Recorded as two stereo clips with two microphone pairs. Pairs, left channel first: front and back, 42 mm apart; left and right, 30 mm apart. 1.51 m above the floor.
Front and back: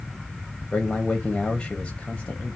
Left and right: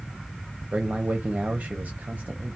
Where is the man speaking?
70° right, 0.7 m.